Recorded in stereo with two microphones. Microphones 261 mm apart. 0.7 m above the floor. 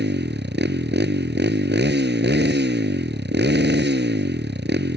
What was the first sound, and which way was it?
A motorcycle, 40° right (ahead or behind).